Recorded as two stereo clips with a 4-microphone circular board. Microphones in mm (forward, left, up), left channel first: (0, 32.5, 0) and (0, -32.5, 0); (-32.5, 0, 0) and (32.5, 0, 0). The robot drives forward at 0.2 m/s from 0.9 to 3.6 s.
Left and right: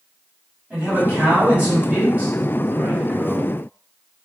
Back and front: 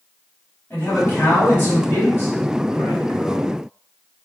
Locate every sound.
0.7 s a man speaking: 140° right, 1.5 m; by 3.5 s 155° right, 1.8 m